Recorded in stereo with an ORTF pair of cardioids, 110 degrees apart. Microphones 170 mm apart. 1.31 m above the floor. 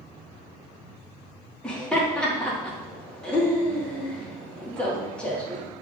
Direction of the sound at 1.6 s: 5° left.